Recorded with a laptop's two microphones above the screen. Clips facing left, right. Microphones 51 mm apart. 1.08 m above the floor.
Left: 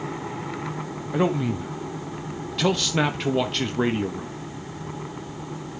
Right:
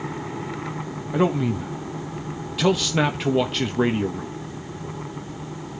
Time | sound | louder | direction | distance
1.1 | a man speaking | right 2 dB | centre (ahead or behind) | 0.9 m